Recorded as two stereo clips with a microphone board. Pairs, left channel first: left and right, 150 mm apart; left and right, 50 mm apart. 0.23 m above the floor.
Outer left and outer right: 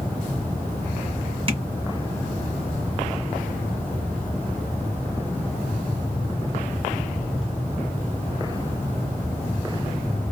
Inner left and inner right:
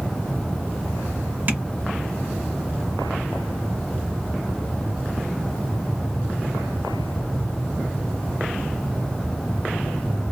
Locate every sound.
1.5 s tapping: 40° right (ahead or behind), 1.6 m